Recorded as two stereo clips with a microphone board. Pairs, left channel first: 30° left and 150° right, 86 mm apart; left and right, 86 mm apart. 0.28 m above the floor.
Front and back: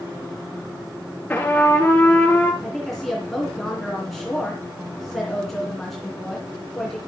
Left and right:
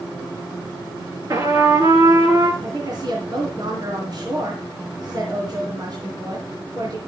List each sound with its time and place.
1.3 s a trumpet: 45° right, 3 m
2.6 s a woman speaking: 60° right, 2.5 m